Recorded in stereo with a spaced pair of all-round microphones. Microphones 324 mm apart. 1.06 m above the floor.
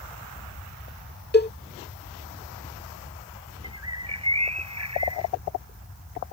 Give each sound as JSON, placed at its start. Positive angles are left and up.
{"t": 1.3, "sound": "a cowbell", "side_deg": 30}
{"t": 3.6, "sound": "a bird", "side_deg": -50}